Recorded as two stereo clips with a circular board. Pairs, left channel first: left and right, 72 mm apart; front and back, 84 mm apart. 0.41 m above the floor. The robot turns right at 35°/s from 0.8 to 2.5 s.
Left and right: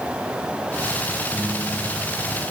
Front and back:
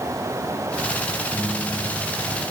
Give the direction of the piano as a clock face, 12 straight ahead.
3 o'clock.